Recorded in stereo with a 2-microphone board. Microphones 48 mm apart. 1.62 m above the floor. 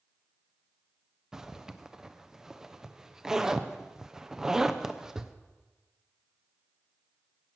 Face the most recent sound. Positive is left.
turn(degrees=-15)  # may be behind; listen again after turning